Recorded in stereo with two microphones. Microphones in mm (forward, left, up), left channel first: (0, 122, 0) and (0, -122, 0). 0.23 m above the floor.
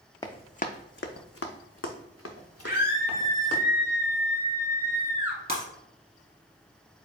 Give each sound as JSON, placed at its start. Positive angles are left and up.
{"t": 0.2, "sound": "running footsteps", "side_deg": 15, "distance_m": 0.6}
{"t": 2.6, "sound": "a scream", "side_deg": 35, "distance_m": 1.8}
{"t": 5.5, "sound": "breaking glass", "side_deg": -25, "distance_m": 1.7}